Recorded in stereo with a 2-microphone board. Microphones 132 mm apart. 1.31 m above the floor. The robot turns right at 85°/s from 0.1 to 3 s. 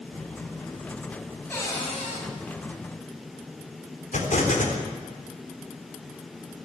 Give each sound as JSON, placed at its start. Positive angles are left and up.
{"t": 1.5, "sound": "a cupboard door", "azimuth_deg": 15, "distance_m": 6.5}
{"t": 4.1, "sound": "an explosion", "side_deg": 75, "distance_m": 3.5}